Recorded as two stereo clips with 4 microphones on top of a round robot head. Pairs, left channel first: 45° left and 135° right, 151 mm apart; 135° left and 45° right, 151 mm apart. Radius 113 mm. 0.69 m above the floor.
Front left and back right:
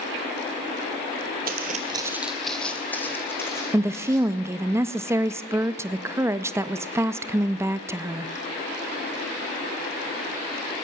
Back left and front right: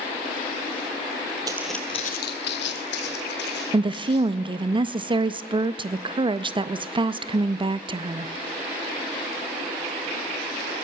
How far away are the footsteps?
About 0.9 m.